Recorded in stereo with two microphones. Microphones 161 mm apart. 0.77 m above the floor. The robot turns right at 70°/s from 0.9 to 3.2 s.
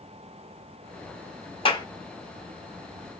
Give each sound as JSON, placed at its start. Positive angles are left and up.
{"t": 1.6, "sound": "a clap", "side_deg": 35, "distance_m": 1.1}